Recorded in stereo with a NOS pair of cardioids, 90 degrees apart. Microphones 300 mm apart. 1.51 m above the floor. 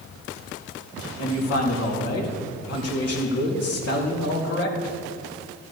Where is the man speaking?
50° left, 3 m.